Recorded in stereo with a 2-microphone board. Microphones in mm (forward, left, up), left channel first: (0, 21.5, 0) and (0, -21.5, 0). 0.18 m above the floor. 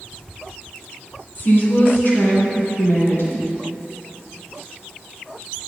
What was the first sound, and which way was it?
A woman speaking, 45° left (ahead or behind).